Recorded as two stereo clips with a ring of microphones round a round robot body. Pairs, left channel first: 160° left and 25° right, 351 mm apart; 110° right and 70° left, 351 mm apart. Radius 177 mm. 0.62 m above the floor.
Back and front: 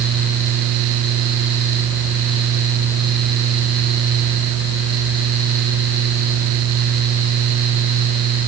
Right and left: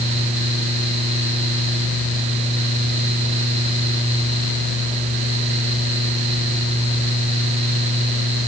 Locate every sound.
Only background noise.